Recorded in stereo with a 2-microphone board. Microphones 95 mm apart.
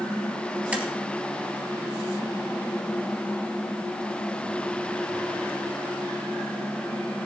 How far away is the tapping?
About 2 m.